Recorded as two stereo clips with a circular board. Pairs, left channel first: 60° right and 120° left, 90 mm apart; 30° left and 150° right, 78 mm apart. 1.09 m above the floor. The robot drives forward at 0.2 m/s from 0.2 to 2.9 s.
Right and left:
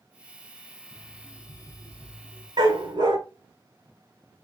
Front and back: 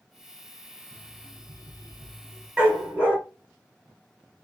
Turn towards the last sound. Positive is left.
turn(degrees=140)